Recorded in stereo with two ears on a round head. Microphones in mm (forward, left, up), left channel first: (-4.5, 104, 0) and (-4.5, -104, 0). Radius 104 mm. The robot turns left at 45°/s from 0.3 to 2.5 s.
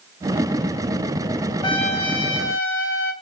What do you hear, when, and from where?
1.6 s a trumpet: 160° left, 2 m; by 3.1 s 120° left, 2 m